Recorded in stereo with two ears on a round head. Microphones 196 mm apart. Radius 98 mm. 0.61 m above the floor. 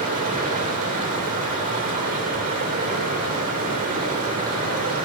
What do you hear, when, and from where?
0.0 s running water: 35° right (ahead or behind), 1.7 m